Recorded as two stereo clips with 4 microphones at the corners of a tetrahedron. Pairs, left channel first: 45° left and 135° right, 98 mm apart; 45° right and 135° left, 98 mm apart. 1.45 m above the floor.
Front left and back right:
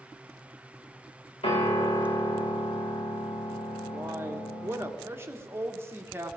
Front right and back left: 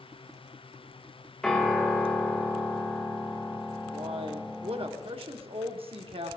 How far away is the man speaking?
About 1.3 m.